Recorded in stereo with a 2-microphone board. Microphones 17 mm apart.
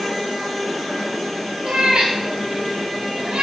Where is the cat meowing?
65° right (ahead or behind), 8 m; by 3.4 s 70° right (ahead or behind), 6.5 m.